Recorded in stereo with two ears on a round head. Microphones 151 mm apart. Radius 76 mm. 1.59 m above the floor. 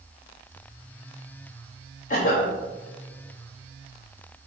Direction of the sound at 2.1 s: 50° left (ahead or behind).